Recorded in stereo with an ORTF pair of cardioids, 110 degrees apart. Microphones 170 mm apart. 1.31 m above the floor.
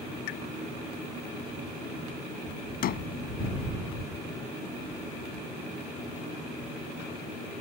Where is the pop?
70° left.